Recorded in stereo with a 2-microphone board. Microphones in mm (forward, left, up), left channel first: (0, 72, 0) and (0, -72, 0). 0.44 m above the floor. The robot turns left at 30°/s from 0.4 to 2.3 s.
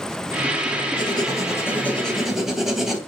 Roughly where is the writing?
Ahead left.